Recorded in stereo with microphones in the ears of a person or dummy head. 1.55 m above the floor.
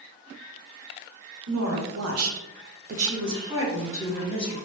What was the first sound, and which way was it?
A woman speaking, 70° right (ahead or behind).